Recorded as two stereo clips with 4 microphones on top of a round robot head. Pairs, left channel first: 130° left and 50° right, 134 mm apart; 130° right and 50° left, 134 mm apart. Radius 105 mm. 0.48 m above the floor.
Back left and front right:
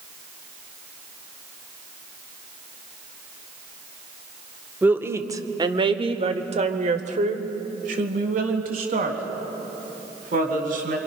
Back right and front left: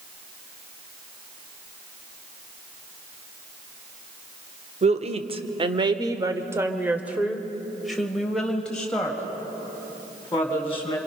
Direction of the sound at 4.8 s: 25° left.